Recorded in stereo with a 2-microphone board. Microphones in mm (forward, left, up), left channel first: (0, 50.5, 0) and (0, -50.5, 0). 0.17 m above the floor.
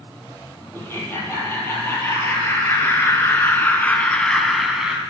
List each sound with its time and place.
0.7 s laughter: 25° left (ahead or behind), 5.5 m; by 5.0 s 10° right (ahead or behind), 1.4 m